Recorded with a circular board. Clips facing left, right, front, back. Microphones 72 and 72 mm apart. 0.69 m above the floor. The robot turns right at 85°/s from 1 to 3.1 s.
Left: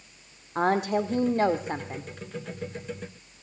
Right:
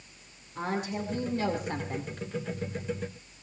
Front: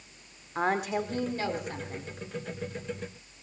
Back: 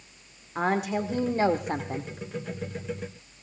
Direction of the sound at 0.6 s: 90° left.